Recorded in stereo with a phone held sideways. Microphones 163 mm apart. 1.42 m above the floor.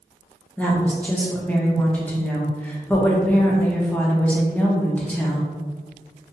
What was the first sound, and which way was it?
A woman speaking, 10° left (ahead or behind).